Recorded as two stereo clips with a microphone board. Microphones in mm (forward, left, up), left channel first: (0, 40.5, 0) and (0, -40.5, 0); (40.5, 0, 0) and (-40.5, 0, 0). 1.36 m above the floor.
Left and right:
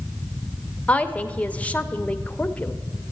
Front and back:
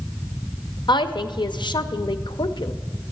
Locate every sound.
0.9 s a woman speaking: 15° left, 0.7 m